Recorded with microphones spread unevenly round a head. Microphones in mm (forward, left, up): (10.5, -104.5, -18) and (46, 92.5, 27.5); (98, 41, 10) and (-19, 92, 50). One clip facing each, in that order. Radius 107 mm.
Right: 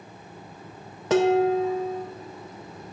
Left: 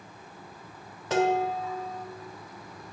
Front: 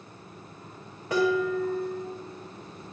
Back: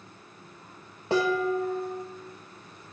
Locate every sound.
1.1 s dishes clattering: 140° right, 0.6 m